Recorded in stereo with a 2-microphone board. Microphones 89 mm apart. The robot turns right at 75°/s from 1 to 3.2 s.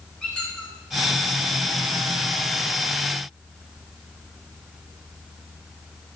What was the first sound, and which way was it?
A squeak, 10° left (ahead or behind).